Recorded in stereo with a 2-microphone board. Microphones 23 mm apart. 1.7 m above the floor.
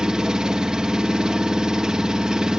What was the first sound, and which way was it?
An engine running, 35° right (ahead or behind).